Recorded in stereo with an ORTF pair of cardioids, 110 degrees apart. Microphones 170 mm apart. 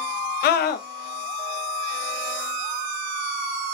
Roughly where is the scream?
Left.